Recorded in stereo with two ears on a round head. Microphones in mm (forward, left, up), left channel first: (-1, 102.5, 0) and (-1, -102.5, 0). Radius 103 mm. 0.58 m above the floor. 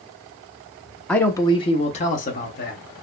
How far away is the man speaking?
About 0.6 m.